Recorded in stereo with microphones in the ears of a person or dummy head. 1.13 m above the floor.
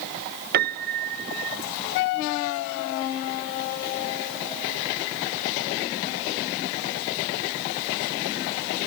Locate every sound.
0.5 s a piano: 50° right (ahead or behind), 0.9 m